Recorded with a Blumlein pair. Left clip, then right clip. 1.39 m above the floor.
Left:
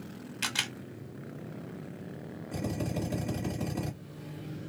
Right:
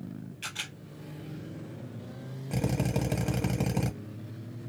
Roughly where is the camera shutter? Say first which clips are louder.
Left 6 dB; ahead left.